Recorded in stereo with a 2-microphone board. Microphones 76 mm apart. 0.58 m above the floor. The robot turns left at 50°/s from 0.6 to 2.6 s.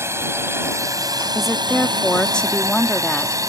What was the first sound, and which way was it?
A drone, 35° right (ahead or behind).